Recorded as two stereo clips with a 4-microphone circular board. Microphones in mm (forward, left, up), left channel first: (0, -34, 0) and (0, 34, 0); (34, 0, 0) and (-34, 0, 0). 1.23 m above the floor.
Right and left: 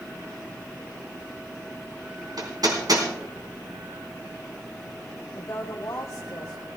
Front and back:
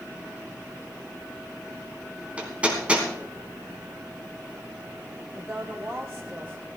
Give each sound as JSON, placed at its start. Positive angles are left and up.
{"t": 2.4, "sound": "hammering", "azimuth_deg": 110, "distance_m": 3.0}
{"t": 5.3, "sound": "a woman speaking", "azimuth_deg": -125, "distance_m": 1.0}